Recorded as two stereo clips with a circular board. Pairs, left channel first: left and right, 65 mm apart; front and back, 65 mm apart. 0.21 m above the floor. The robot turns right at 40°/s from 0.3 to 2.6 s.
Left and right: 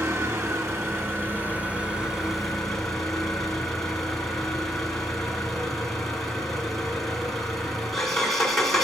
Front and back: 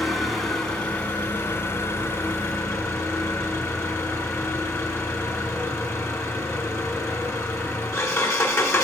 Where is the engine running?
90° right, 1.6 m; by 8.8 s 5° left, 1.6 m.